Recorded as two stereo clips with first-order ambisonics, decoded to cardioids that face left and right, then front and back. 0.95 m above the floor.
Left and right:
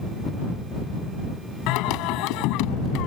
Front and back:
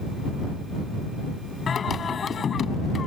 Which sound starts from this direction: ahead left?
Singing, at 1.7 s.